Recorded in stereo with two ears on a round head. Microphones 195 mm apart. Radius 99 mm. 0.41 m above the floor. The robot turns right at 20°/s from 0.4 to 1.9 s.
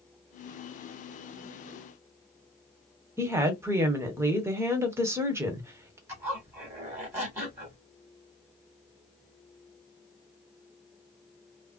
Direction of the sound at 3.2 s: 10° right (ahead or behind).